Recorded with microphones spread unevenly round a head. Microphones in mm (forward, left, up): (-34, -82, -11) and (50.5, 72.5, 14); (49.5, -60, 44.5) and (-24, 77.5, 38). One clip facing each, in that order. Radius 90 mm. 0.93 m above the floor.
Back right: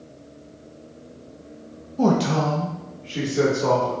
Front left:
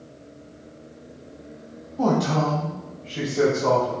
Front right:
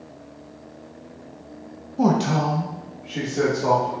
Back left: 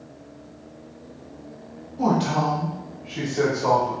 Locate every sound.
2.0 s a man speaking: 55° right, 0.6 m; by 3.9 s 130° right, 2 m